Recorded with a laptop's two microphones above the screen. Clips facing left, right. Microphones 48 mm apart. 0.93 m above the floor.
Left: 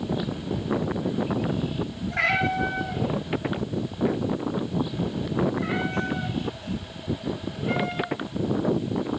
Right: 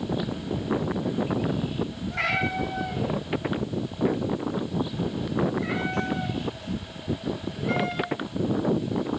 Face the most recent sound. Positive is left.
turn(degrees=25)  # may be behind; listen again after turning